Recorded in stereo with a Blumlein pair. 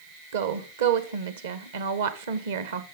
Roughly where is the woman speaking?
Ahead right.